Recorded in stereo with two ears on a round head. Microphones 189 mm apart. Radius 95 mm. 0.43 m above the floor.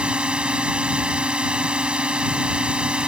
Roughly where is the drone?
Centre.